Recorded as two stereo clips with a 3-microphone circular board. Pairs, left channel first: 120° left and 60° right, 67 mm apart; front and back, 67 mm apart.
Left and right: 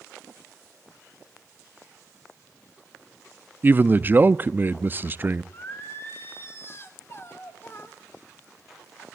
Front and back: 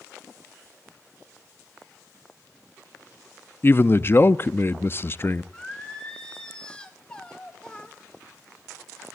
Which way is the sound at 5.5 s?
75° left.